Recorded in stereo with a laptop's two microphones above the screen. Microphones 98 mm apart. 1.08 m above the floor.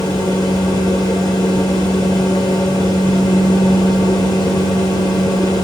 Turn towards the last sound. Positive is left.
turn(degrees=40)  # may be behind; listen again after turning